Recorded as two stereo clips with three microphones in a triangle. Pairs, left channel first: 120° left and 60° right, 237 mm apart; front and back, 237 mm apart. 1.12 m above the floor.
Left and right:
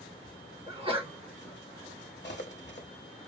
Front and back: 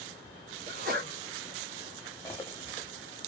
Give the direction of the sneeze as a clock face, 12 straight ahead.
4 o'clock.